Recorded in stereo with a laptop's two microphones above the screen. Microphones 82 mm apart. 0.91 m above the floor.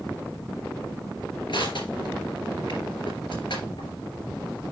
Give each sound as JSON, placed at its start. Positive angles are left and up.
{"t": 1.5, "sound": "crushing", "side_deg": 75, "distance_m": 3.0}